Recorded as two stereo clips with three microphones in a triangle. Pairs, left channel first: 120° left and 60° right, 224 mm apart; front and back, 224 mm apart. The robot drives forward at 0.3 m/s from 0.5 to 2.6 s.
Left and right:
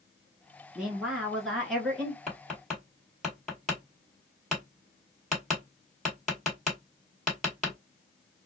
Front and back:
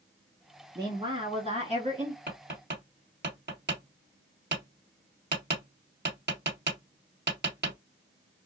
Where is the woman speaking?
140° right, 1.1 m; by 2.2 s 160° right, 1.3 m.